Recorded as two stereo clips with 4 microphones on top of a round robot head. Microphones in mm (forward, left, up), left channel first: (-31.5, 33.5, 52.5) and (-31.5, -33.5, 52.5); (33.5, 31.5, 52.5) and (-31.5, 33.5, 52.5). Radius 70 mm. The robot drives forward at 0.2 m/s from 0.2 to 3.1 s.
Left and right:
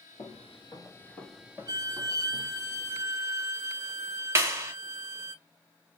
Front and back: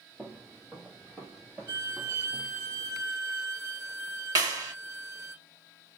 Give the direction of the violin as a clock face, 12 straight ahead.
4 o'clock.